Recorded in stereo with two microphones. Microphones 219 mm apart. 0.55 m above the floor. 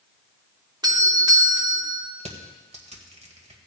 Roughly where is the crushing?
Right.